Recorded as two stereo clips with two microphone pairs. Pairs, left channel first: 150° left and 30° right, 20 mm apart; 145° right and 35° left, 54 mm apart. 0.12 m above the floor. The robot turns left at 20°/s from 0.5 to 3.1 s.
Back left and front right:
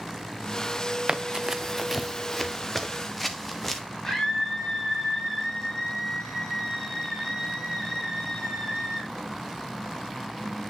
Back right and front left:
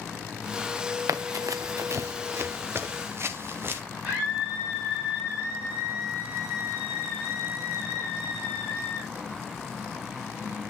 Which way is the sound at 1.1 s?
25° left.